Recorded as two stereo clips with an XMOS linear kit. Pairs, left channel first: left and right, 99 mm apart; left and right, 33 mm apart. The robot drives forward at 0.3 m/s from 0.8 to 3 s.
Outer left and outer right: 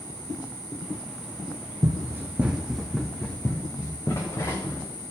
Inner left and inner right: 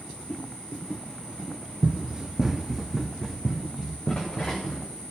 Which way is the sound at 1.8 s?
40° right (ahead or behind).